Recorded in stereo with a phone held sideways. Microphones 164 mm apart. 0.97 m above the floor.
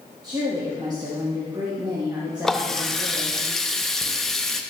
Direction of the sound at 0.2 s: 25° right (ahead or behind).